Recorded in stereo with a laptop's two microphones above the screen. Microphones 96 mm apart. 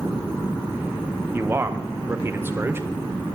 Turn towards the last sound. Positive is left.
turn(degrees=-25)  # may be behind; listen again after turning